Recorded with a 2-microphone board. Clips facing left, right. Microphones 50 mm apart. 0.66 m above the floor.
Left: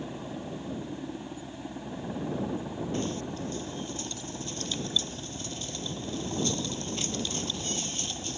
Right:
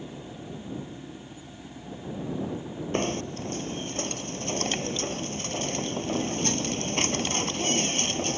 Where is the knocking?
50° right (ahead or behind).